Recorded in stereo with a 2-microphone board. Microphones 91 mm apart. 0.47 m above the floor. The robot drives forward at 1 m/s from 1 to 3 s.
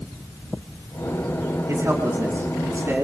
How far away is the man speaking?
About 4 m.